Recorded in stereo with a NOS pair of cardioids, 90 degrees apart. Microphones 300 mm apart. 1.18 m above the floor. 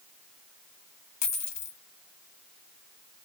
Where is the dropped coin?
65° left, 1.6 m.